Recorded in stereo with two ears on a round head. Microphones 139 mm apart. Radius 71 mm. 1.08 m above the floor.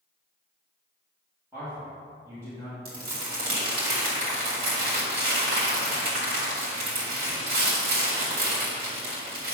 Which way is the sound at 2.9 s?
65° right (ahead or behind).